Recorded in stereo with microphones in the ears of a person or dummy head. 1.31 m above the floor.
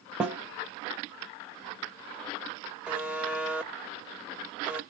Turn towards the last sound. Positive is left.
turn(degrees=-5)  # may be behind; listen again after turning